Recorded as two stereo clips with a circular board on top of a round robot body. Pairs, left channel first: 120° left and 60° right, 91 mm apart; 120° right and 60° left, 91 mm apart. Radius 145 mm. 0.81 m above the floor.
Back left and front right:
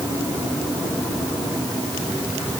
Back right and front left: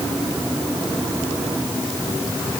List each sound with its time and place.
Only background noise.